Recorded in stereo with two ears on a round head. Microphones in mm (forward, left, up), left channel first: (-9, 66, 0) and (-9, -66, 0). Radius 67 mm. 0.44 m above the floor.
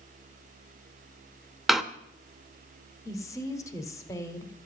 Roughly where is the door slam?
Centre.